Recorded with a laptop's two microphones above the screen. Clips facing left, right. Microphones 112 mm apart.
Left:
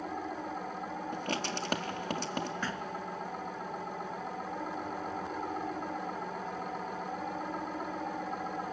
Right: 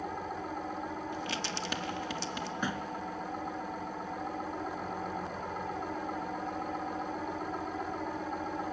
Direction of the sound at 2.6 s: 15° right (ahead or behind).